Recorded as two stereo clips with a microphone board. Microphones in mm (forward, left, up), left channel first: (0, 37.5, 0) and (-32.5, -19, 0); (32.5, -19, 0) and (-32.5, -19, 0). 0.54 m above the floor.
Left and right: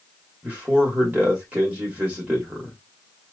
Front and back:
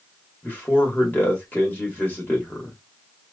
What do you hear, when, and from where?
0.4 s a man speaking: 55° right, 2.5 m